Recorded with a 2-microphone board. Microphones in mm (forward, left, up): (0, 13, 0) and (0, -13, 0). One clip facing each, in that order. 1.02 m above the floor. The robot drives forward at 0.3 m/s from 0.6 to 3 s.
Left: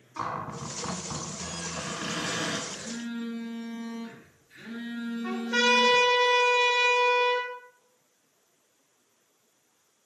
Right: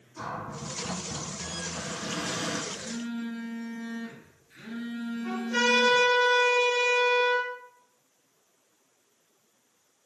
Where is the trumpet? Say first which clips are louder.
Left 1 dB; 40° left (ahead or behind), 1.4 m.